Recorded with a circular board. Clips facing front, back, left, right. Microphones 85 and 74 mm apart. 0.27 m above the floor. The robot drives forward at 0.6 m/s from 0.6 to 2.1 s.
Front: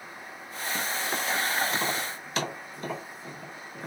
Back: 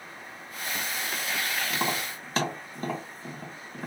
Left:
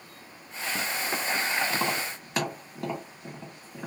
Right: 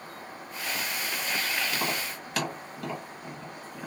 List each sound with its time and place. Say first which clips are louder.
1.7 s tapping: even, left 2 dB; 140° left, 1.9 m; by 3.9 s 145° left, 2 m